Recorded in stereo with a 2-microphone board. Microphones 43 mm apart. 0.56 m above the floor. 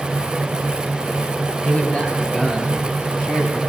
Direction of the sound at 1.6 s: 25° left (ahead or behind).